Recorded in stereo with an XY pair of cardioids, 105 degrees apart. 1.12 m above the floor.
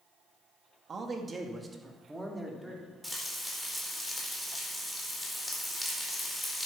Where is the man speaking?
40° right, 2.0 m; by 2.9 s 5° right, 3.5 m.